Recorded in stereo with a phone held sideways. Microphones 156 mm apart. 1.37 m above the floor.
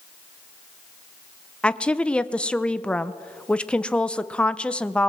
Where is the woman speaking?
10° left (ahead or behind), 0.6 m.